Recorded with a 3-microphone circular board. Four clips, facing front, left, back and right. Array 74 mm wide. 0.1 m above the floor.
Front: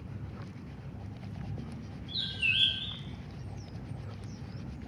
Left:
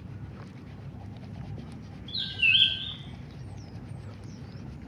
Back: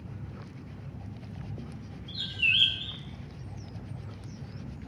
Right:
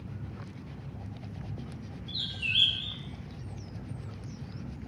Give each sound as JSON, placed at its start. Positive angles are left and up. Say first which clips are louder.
{"t": 2.1, "sound": "a bird", "louder": "left 8 dB, back 4 dB", "azimuth_deg": 115, "distance_m": 1.0}